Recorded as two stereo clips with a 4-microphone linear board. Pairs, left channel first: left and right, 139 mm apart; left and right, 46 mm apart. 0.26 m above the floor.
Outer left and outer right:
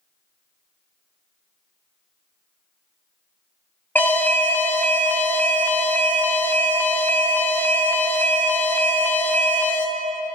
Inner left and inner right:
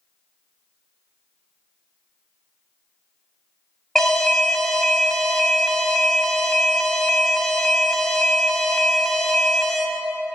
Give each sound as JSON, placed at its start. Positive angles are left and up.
{"t": 4.0, "sound": "an alarm", "side_deg": 15, "distance_m": 0.9}